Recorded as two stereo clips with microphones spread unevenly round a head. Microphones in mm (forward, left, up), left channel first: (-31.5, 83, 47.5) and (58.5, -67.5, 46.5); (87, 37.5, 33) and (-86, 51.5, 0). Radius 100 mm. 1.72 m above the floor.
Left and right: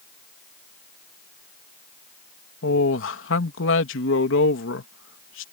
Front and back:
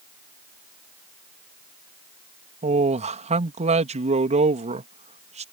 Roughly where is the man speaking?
Behind left.